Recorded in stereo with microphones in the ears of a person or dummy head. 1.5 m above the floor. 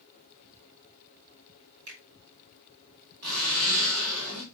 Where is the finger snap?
80° right, 4 m.